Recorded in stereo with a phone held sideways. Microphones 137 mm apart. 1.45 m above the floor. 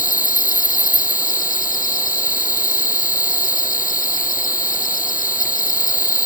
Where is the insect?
80° left.